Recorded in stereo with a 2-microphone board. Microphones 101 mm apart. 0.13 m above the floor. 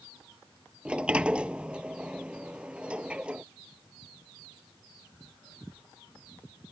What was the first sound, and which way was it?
A sliding door, 10° right (ahead or behind).